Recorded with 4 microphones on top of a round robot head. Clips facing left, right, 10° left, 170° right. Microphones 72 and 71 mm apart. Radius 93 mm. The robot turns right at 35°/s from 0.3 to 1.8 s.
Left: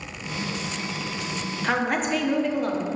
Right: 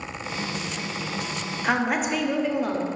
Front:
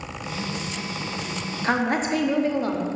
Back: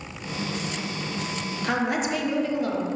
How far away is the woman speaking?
About 0.9 m.